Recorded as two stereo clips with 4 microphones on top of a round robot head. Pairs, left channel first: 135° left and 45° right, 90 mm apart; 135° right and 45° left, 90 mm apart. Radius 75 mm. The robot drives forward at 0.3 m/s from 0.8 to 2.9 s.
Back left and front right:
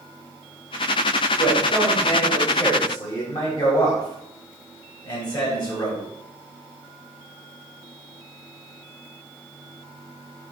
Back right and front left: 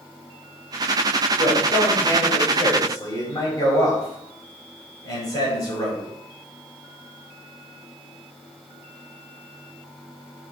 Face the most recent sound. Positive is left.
turn(degrees=175)